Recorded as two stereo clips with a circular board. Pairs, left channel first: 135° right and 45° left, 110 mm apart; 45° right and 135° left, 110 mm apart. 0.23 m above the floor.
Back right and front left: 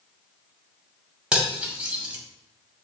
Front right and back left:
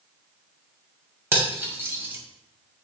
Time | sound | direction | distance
1.3 | cutlery clinking | 110° left | 0.7 m